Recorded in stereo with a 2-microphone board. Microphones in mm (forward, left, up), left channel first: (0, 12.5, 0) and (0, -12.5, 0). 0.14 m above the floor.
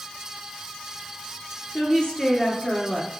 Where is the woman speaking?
35° left (ahead or behind), 2 m.